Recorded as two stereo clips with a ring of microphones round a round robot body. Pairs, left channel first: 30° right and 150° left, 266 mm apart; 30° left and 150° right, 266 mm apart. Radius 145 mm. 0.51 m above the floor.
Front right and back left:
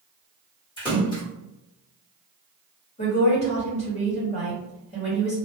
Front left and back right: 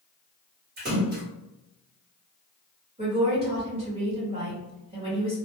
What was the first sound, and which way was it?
A splash, 100° right.